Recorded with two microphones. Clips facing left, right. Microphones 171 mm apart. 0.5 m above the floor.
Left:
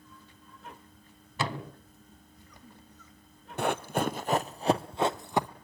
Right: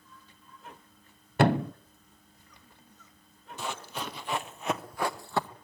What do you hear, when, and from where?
1.4 s a thud: 60° right (ahead or behind), 0.7 m
3.6 s running footsteps: 60° left (ahead or behind), 1.0 m; by 5.5 s 15° left (ahead or behind), 1.1 m